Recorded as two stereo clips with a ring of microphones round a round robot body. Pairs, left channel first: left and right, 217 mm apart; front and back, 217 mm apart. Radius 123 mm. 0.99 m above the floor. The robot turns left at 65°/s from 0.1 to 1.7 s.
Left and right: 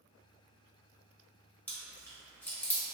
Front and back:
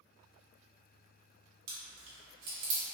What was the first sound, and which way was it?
Chewing, 175° left.